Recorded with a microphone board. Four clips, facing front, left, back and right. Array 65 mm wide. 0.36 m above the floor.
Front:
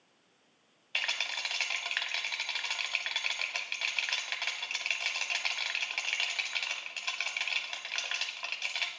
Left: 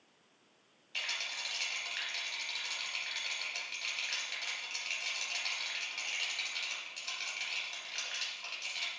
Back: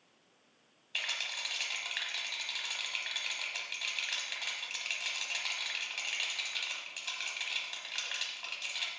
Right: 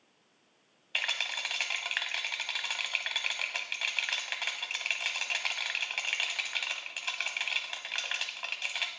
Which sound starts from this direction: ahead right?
A rattle, at 0.9 s.